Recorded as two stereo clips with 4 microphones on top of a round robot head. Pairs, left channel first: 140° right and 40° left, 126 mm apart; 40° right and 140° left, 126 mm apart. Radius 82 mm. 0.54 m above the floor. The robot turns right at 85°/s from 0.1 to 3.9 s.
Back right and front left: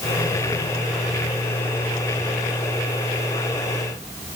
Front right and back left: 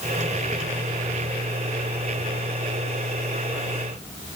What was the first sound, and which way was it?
Only background noise.